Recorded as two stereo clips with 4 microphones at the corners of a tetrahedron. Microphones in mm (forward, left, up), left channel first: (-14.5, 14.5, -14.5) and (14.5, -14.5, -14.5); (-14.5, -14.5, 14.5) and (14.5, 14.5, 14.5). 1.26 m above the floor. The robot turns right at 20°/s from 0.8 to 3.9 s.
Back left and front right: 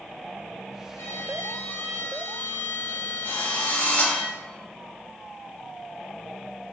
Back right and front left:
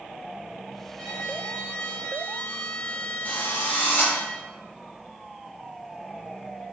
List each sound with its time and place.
1.0 s a violin: 145° left, 1.7 m; by 4.2 s 155° right, 1.7 m
3.2 s a drill: 175° left, 3.5 m; by 4.1 s 175° right, 3.5 m